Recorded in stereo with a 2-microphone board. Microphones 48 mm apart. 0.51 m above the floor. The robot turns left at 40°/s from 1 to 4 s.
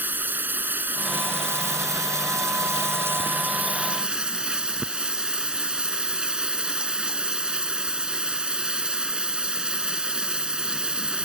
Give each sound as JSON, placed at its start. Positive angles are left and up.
{"t": 0.0, "sound": "running water", "azimuth_deg": -40}